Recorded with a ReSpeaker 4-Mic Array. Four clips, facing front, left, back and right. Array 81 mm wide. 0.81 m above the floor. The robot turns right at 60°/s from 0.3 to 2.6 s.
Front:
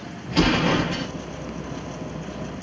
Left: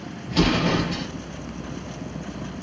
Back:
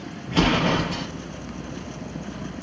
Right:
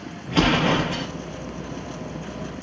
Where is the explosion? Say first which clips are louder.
Right 2 dB, front 1 dB; 110° right, 0.8 m; by 1.1 s 60° right, 0.8 m.